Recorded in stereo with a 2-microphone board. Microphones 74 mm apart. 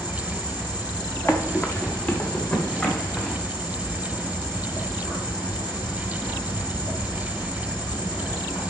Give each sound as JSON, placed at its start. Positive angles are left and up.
{"t": 0.0, "sound": "an insect", "side_deg": 75, "distance_m": 5.0}
{"t": 1.3, "sound": "running footsteps", "side_deg": 30, "distance_m": 1.4}